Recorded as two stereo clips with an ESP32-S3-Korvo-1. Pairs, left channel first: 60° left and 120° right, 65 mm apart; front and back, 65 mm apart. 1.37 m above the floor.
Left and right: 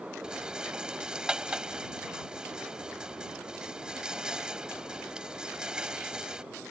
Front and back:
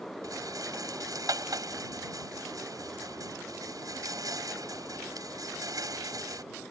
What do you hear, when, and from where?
0.2 s a rattle: 160° left